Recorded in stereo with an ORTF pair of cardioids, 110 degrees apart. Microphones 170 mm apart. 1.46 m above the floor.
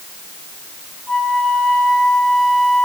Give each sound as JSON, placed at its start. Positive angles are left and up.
{"t": 1.1, "sound": "a flute", "azimuth_deg": 5, "distance_m": 4.5}